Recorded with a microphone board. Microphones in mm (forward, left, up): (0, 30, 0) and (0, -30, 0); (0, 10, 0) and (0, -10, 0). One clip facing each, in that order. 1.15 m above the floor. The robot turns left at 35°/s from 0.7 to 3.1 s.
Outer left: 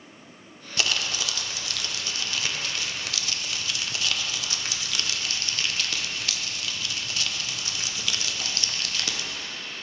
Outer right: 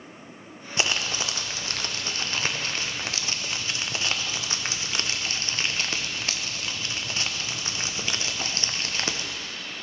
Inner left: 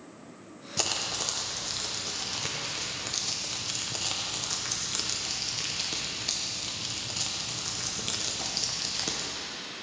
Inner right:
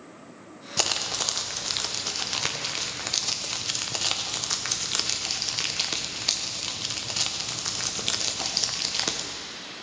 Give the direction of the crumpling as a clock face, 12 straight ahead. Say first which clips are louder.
Outer right 1 dB, inner right 4 dB; 1 o'clock.